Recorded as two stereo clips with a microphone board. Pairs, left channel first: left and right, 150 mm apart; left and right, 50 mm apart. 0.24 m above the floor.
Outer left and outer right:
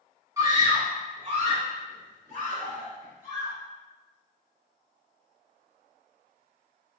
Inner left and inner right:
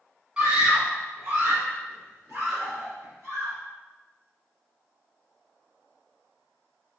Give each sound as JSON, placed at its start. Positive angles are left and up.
{"t": 0.4, "sound": "a scream", "side_deg": -25, "distance_m": 1.8}